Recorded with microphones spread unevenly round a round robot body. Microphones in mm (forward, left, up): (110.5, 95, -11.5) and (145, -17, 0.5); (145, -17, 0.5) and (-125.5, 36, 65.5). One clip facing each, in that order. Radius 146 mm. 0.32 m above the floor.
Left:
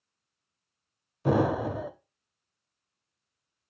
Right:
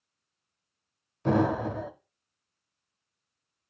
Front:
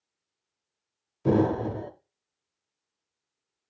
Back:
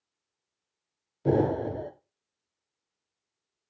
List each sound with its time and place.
1.2 s an explosion: 35° left, 0.6 m